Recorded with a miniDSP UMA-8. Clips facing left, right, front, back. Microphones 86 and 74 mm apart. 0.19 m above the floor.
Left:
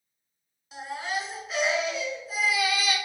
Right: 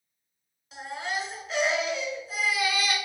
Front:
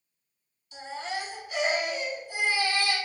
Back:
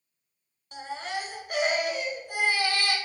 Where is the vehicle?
No vehicle in this recording.